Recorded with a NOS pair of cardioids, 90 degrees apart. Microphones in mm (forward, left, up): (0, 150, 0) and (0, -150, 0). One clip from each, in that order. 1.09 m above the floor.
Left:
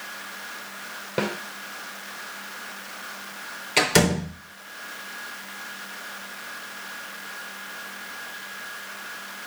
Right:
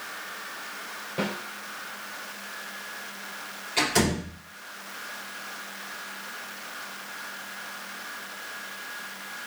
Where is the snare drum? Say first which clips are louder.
Left 4 dB; 60° left, 2.5 m.